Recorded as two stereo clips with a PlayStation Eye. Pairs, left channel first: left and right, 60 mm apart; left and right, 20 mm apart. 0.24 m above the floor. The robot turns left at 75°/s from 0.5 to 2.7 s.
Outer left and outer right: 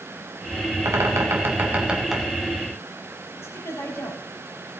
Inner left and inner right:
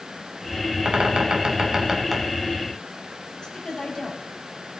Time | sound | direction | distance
0.8 | a bird | 80° right | 2.0 m
3.4 | a woman speaking | 50° left (ahead or behind) | 5 m